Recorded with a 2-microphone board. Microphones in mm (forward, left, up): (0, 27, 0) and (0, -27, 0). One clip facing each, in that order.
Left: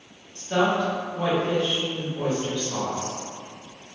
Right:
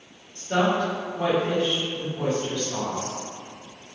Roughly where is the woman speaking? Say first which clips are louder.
Even; right.